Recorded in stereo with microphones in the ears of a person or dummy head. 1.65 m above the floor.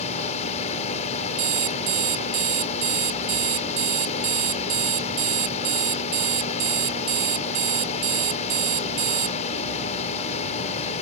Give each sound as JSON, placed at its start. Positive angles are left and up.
{"t": 0.0, "sound": "a fan", "side_deg": 35}
{"t": 1.4, "sound": "an alarm clock", "side_deg": -70}